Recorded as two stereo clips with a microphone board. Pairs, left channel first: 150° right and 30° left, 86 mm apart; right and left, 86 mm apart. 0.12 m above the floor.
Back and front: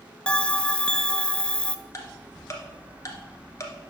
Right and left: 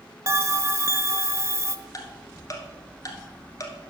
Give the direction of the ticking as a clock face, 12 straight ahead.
4 o'clock.